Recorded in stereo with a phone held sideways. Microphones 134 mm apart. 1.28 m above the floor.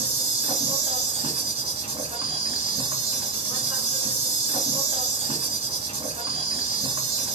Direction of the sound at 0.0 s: 45° right (ahead or behind).